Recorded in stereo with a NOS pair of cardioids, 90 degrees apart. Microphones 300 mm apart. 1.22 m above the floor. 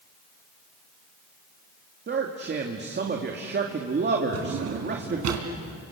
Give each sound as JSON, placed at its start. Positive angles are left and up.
{"t": 2.1, "sound": "a man speaking", "azimuth_deg": -35, "distance_m": 2.5}
{"t": 4.3, "sound": "a drawer", "azimuth_deg": -70, "distance_m": 3.5}